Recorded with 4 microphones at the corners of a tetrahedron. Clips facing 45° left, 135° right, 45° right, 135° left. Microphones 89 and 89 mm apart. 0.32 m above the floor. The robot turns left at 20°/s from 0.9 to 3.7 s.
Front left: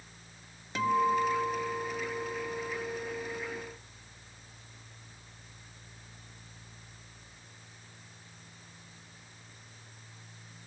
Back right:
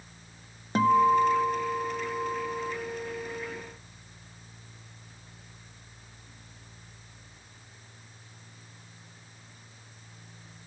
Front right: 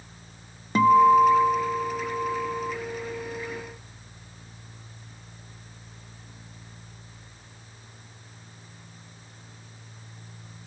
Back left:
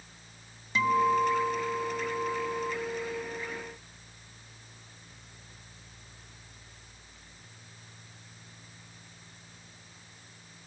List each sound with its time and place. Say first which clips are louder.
0.8 s a guitar: back right 6 dB, front right 9 dB; 90° right, 0.6 m; by 2.7 s 125° right, 0.6 m